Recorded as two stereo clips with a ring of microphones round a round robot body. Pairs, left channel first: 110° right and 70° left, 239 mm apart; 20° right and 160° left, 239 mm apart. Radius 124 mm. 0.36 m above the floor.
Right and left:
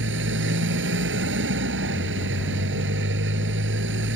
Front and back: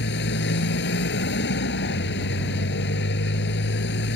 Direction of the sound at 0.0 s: 25° left.